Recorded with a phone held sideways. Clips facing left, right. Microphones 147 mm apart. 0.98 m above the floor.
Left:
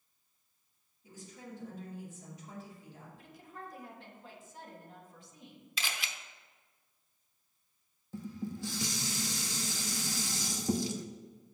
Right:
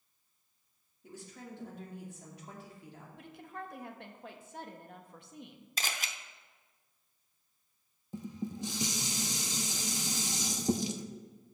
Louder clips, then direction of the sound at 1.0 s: Right 1 dB; 75° right (ahead or behind).